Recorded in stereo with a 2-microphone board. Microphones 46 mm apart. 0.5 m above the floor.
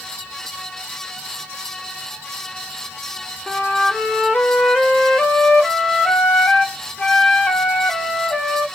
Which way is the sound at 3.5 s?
15° left (ahead or behind).